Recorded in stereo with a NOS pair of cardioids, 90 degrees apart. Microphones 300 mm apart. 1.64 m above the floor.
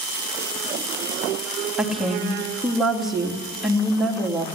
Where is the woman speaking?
Straight ahead, 2.5 m.